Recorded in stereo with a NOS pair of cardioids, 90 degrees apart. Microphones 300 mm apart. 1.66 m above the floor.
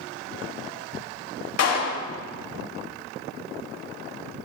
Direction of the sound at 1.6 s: 55° left.